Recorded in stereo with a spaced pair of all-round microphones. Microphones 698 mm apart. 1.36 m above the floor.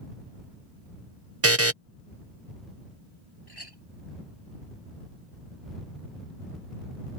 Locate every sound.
1.4 s a buzzer: 20° right (ahead or behind)
3.5 s a clink: 35° left (ahead or behind)